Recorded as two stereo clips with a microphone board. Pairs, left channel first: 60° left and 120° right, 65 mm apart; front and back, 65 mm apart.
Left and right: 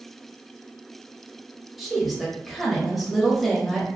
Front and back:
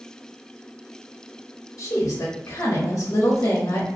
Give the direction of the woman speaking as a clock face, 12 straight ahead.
1 o'clock.